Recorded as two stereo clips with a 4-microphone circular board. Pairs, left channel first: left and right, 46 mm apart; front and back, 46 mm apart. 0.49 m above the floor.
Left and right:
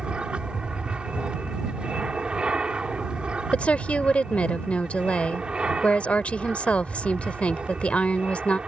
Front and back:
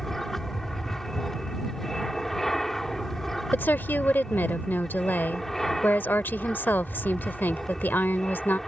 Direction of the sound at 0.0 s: 70° right.